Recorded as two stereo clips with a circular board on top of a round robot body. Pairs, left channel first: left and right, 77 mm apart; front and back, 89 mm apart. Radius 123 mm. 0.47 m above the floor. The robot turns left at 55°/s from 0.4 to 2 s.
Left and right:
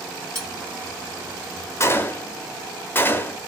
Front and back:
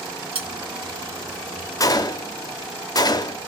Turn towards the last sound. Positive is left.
turn(degrees=35)